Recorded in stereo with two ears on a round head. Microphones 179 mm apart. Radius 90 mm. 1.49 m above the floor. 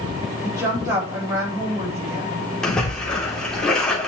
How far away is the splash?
About 3 m.